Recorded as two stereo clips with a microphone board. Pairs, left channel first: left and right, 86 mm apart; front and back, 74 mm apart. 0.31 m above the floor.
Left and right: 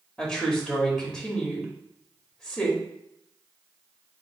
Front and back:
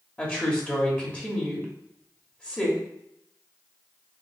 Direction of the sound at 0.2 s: 30° left.